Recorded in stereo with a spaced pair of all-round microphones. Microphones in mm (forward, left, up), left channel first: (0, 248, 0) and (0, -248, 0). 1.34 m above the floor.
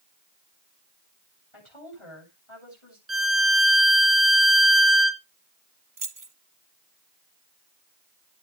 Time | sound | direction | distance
1.5 | a woman speaking | 75° left (ahead or behind) | 8 m
3.1 | a violin | 30° right (ahead or behind) | 0.9 m
6.0 | keys jangling | 40° right (ahead or behind) | 0.9 m